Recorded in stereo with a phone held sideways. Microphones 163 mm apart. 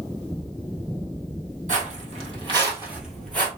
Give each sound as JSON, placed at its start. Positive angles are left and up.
{"t": 1.7, "sound": "footsteps", "side_deg": -50, "distance_m": 1.8}